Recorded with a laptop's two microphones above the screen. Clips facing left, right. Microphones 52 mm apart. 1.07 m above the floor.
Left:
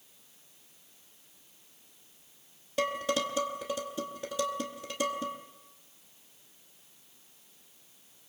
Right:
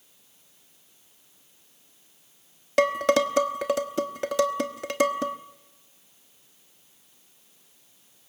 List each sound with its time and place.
2.8 s dishes clattering: 75° right (ahead or behind), 1.2 m